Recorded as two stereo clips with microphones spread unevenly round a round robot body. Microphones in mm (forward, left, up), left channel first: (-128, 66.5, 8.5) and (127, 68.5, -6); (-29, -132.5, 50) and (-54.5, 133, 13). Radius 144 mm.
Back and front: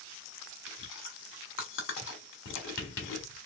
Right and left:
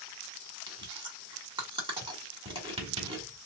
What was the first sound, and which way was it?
Chewing, 155° left.